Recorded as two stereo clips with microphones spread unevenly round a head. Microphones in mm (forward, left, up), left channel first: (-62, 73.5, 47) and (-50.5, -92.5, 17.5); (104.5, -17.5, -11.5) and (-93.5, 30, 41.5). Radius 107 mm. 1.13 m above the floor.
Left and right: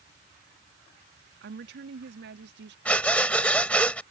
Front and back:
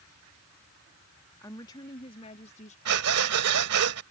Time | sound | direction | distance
1.4 | a woman speaking | 90° right | ?
2.9 | breathing | 175° left | ?